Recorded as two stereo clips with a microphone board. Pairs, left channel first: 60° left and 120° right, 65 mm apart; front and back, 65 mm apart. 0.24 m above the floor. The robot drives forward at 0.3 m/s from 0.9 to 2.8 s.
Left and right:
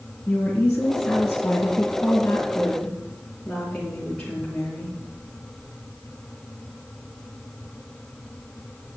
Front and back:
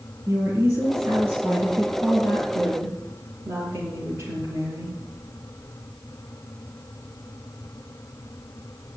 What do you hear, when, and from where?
0.3 s a woman speaking: 140° left, 4.5 m; by 4.9 s 145° left, 5 m